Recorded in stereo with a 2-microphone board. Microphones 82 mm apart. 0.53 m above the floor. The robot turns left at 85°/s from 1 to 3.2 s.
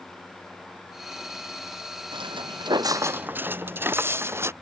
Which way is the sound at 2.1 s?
75° right (ahead or behind).